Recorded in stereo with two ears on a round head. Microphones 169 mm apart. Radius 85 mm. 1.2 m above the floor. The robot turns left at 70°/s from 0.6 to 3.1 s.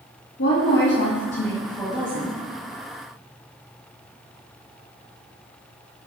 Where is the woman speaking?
85° left, 1.7 m; by 2.4 s 40° right, 1.7 m.